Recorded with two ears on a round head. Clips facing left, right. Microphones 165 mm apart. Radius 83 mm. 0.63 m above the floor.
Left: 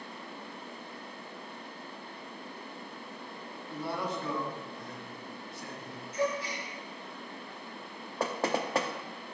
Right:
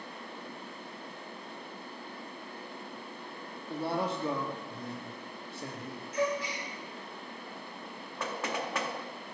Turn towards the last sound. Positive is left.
turn(degrees=30)  # may be behind; listen again after turning